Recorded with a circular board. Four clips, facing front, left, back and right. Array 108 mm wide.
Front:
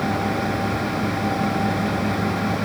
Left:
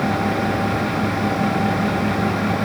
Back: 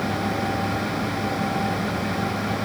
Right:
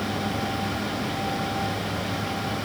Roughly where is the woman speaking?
I don't hear a woman speaking.